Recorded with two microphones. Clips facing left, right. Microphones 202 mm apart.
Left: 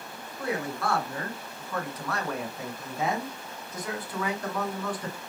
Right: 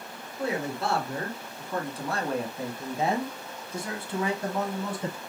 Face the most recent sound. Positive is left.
turn(degrees=-25)  # may be behind; listen again after turning